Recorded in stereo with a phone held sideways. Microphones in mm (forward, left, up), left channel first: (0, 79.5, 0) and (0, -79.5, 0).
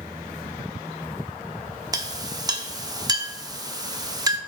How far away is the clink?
About 0.8 m.